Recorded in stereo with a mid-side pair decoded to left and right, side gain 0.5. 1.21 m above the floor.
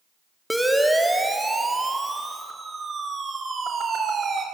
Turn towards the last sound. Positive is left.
turn(degrees=-45)